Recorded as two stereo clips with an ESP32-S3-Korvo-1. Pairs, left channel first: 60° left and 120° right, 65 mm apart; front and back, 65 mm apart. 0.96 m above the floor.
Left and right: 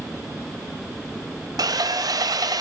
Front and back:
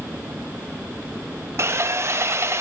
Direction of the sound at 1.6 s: 135° right.